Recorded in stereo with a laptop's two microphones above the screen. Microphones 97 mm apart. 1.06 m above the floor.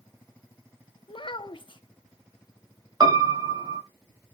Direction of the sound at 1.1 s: 50° left (ahead or behind).